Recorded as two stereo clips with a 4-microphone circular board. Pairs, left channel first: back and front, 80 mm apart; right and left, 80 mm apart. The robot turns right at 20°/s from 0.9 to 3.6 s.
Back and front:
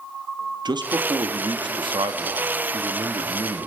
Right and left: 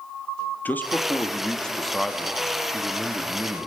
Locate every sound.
0.7 s a man speaking: 20° right, 1.4 m; by 3.7 s 30° left, 1.4 m